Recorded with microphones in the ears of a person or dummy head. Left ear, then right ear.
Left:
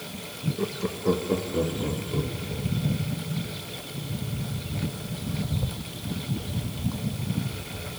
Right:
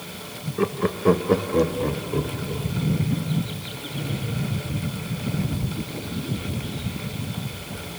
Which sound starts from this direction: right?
Laughter, at 0.6 s.